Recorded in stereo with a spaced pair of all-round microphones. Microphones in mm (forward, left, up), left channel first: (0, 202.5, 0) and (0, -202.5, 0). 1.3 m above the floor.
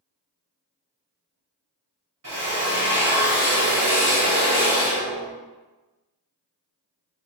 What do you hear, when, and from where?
2.2 s a drill: 50° right (ahead or behind), 1.6 m